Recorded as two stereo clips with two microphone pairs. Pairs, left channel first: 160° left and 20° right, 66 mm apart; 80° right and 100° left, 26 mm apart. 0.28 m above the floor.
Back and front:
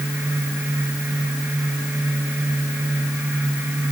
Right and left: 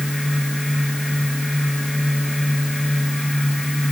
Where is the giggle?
No giggle in this recording.